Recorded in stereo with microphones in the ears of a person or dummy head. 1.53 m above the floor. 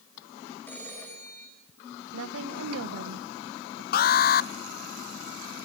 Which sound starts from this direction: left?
An alarm, at 3.9 s.